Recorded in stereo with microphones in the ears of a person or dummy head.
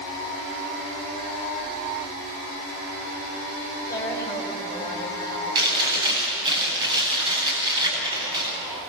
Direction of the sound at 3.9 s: 15° left (ahead or behind).